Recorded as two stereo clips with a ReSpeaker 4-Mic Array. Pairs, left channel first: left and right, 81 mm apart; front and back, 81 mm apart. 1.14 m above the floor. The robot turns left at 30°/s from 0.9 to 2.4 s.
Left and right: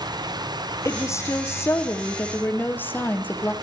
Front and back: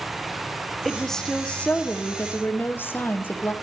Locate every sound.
0.8 s a woman speaking: 90° left, 0.7 m; by 3.5 s 45° left, 0.7 m